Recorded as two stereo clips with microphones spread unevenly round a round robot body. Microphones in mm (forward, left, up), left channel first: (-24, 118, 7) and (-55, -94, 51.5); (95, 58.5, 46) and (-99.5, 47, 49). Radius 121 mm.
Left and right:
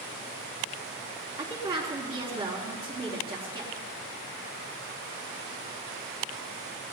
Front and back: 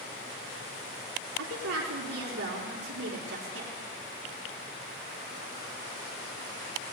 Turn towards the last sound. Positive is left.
turn(degrees=-165)